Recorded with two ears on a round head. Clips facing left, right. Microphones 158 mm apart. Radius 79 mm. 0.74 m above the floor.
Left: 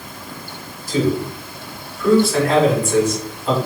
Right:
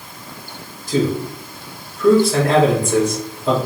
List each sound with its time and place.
0.9 s a man speaking: 20° right (ahead or behind), 1.1 m